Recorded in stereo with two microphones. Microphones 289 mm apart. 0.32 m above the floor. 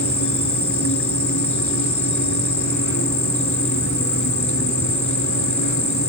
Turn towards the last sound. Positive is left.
turn(degrees=80)